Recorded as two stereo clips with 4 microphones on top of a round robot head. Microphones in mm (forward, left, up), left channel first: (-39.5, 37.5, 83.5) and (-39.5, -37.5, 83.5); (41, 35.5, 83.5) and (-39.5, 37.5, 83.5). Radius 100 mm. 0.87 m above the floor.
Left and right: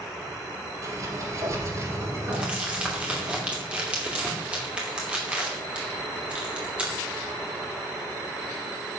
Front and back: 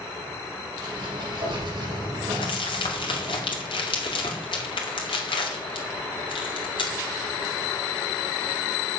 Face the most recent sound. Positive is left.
turn(degrees=-15)